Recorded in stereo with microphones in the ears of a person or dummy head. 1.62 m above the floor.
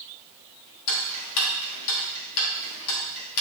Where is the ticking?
75° left (ahead or behind), 1.5 m.